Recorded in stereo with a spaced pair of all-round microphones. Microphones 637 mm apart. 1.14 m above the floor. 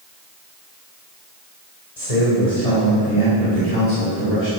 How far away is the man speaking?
About 4 m.